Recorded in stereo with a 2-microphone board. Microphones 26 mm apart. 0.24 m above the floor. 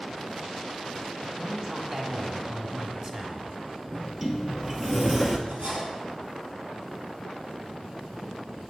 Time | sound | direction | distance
1.4 | a man speaking | 30° right (ahead or behind) | 1.2 m
3.9 | a sliding door | 5° right (ahead or behind) | 1.0 m
5.5 | cutlery clinking | 65° right (ahead or behind) | 3 m